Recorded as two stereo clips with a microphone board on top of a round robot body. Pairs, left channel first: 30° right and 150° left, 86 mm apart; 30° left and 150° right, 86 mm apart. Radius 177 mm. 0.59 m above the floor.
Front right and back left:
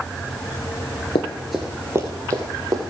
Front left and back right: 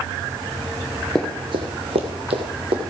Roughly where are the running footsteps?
Ahead right.